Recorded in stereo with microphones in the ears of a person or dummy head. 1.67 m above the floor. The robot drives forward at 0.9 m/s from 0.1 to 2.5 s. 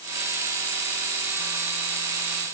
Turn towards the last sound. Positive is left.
No sound to turn to.